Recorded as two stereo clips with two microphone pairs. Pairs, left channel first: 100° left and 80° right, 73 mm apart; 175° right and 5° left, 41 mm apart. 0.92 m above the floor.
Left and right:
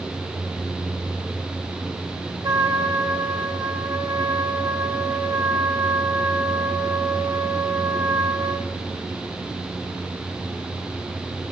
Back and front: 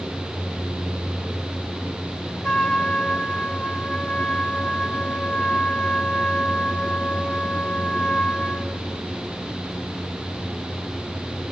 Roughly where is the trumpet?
Right.